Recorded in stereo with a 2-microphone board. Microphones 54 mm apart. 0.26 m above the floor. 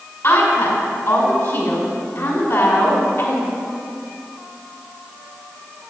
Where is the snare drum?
I don't hear a snare drum.